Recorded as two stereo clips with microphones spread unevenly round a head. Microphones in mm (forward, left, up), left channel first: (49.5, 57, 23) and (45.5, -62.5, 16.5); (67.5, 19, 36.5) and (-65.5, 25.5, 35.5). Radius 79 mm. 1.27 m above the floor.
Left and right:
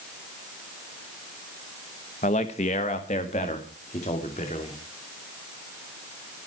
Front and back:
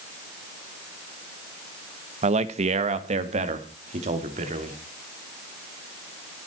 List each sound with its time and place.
2.2 s a man speaking: 135° left, 1.3 m; by 4.8 s 140° left, 4 m